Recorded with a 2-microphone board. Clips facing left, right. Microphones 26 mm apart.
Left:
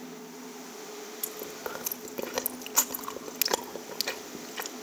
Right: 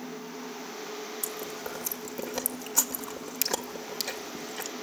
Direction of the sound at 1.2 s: 30° left (ahead or behind).